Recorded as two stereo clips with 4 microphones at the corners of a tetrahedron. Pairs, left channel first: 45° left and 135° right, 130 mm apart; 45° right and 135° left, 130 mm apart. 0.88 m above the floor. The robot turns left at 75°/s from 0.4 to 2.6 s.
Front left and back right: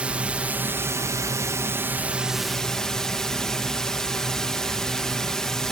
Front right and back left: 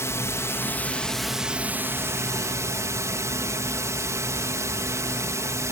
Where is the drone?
70° right; by 5.7 s 125° left.